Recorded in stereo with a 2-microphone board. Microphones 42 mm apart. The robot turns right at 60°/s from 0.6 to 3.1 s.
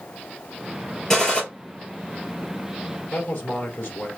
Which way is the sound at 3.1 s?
60° left (ahead or behind).